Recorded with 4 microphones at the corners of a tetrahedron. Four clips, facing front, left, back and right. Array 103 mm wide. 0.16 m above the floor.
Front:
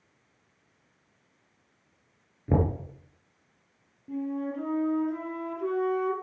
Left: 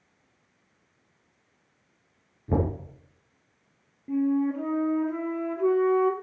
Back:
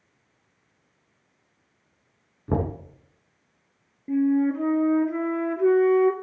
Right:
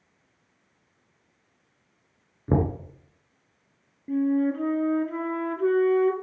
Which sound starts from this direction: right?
Knocking, at 2.5 s.